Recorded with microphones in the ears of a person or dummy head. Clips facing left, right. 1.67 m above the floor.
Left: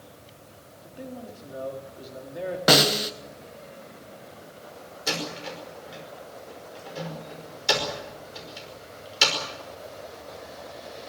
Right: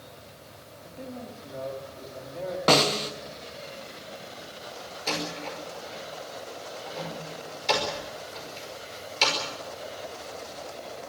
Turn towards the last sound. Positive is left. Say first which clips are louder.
# even
turn(degrees=20)  # may be behind; listen again after turning